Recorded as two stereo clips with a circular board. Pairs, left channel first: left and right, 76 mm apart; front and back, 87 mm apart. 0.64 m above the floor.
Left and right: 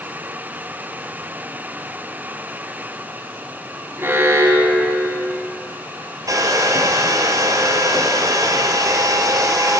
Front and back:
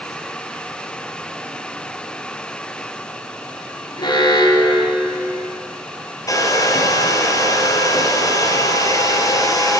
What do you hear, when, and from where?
4.0 s an alarm: 30° right, 3 m
6.3 s a hair dryer: 50° right, 2.5 m